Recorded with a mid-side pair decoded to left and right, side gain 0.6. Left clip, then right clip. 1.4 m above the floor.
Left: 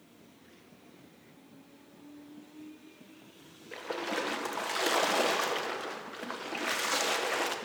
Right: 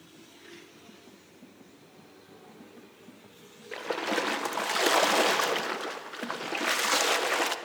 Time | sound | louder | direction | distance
3.7 | a splash | right 5 dB | 25° right | 0.8 m